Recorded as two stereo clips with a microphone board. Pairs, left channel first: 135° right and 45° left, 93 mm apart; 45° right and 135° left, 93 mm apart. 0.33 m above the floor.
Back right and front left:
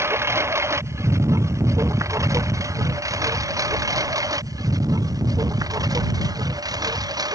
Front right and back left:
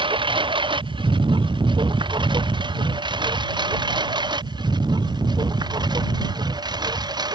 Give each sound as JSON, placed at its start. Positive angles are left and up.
{"t": 0.0, "sound": "a lawn mower", "azimuth_deg": 105}